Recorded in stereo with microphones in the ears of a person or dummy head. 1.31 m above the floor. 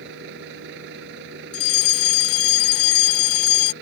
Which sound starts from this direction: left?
A fire alarm, at 1.5 s.